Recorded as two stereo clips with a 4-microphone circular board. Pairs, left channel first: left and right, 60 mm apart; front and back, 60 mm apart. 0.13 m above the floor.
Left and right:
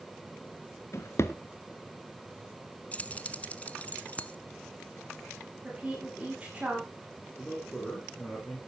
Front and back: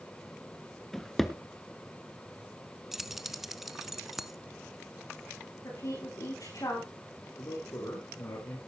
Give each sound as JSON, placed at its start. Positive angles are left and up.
{"t": 0.9, "sound": "a drawer", "azimuth_deg": 85, "distance_m": 1.0}
{"t": 2.9, "sound": "keys jangling", "azimuth_deg": 100, "distance_m": 0.9}
{"t": 5.6, "sound": "a woman speaking", "azimuth_deg": -15, "distance_m": 8.0}
{"t": 7.4, "sound": "a man speaking", "azimuth_deg": 15, "distance_m": 5.0}